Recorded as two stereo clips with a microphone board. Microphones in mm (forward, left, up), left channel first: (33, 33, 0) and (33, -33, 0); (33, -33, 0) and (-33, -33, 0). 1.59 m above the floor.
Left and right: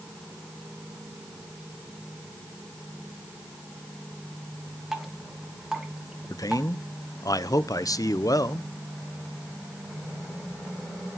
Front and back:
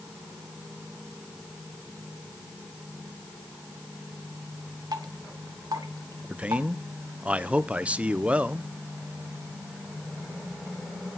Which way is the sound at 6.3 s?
110° left.